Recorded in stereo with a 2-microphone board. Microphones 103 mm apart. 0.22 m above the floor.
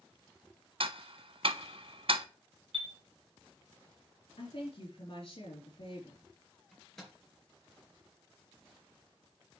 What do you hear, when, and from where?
0.8 s ticking: 60° right (ahead or behind), 0.7 m
2.7 s a chime: 65° right (ahead or behind), 1.4 m
4.4 s a woman speaking: 60° left (ahead or behind), 4 m
6.7 s a microwave: centre (ahead or behind), 3.5 m